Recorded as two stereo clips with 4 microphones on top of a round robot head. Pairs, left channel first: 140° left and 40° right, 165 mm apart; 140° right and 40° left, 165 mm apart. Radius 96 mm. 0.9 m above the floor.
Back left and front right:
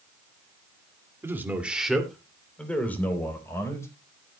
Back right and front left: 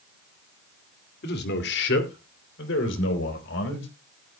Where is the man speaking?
115° right, 2.5 m; by 3.9 s 145° right, 4 m.